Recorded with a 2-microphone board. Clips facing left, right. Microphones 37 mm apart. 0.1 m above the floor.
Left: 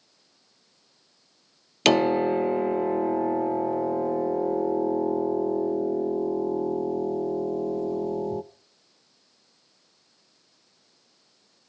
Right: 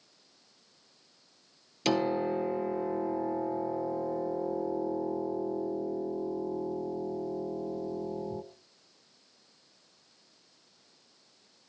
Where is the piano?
70° left (ahead or behind), 0.7 m.